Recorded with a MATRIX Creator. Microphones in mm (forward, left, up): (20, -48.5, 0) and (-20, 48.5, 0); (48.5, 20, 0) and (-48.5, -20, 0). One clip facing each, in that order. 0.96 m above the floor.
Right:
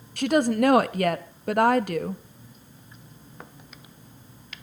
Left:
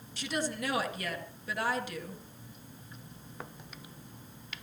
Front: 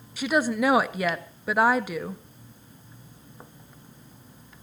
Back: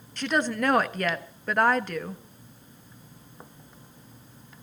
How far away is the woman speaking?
About 1.5 m.